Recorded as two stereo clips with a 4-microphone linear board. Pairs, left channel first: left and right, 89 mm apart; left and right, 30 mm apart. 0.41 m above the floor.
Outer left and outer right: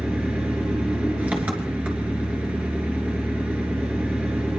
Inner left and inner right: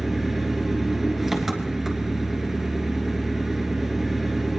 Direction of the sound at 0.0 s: 15° right (ahead or behind).